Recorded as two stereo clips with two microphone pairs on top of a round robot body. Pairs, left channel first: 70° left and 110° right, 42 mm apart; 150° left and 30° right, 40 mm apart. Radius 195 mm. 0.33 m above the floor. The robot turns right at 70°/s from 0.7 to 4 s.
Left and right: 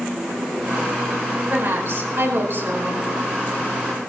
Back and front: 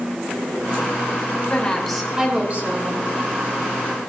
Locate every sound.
1.5 s a woman speaking: 150° right, 5.5 m; by 3.0 s 50° right, 5.5 m